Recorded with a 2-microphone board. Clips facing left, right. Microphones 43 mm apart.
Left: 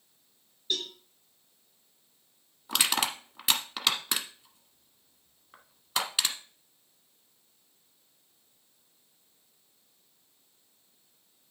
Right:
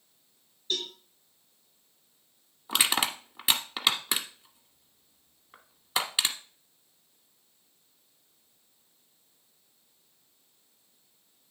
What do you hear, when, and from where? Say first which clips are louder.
0.7 s a cowbell: even; 20° left (ahead or behind), 5 m
2.7 s crushing: right 1 dB; 5° right (ahead or behind), 1.3 m